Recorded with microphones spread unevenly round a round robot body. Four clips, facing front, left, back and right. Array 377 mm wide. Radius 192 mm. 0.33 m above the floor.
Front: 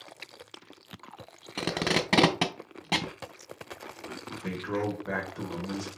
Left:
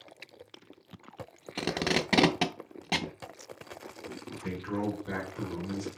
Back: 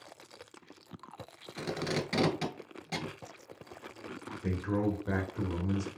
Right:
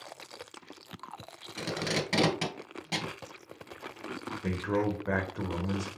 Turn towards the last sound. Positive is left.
turn(degrees=-135)